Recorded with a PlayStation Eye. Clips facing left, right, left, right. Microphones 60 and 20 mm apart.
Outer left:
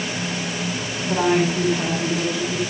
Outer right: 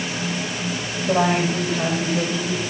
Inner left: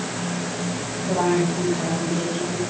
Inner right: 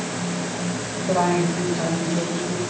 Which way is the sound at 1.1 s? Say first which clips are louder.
Even, inner right 1 dB; 60° right (ahead or behind).